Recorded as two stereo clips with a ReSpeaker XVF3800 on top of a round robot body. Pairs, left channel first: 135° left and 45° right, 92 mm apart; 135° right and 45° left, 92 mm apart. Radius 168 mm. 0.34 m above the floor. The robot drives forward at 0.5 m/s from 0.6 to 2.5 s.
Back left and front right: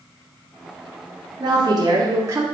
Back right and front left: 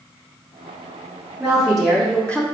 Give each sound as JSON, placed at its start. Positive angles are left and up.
{"t": 1.4, "sound": "a woman speaking", "azimuth_deg": -30, "distance_m": 1.1}